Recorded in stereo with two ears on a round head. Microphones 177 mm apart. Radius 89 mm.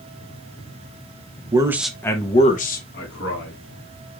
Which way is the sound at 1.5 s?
20° right (ahead or behind).